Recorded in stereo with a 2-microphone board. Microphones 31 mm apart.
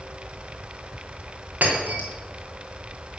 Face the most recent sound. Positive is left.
turn(degrees=-65)  # may be behind; listen again after turning